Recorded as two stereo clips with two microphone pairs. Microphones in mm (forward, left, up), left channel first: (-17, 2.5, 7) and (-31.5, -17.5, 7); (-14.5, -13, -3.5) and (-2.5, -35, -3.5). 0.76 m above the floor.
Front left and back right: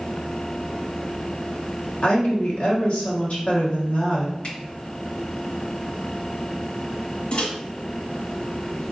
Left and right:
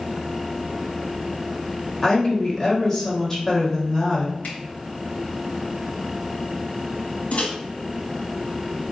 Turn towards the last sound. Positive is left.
turn(degrees=95)